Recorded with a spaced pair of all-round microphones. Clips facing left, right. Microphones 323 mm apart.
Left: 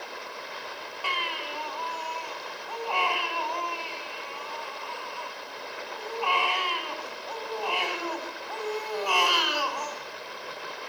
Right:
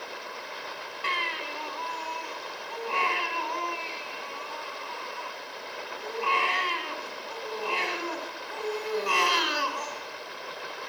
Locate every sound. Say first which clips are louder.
1.0 s a baby crying: even; 25° right (ahead or behind), 5.5 m